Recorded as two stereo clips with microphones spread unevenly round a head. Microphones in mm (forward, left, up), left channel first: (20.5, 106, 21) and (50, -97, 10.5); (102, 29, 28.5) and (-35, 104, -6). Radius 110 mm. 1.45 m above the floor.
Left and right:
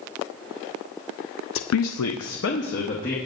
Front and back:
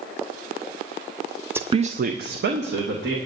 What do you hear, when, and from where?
1.6 s a woman speaking: 75° left, 0.5 m; by 3.2 s 155° left, 1.5 m